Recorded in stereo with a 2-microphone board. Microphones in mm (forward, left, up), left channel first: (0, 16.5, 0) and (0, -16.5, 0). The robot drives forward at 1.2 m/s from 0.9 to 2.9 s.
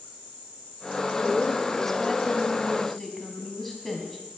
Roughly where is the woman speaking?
Centre.